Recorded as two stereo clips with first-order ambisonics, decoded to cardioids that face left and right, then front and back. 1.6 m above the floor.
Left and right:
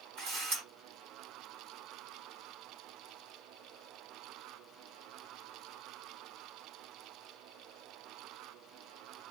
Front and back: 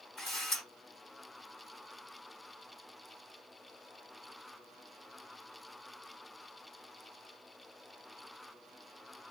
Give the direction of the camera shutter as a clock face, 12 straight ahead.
2 o'clock.